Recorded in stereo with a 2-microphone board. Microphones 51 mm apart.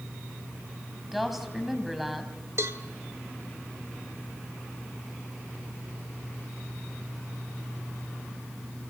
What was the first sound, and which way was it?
A woman speaking, 5° right (ahead or behind).